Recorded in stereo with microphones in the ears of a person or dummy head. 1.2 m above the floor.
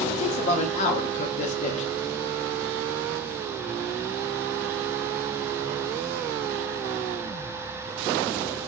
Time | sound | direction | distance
0.1 | a man speaking | 40° left (ahead or behind) | 1.0 m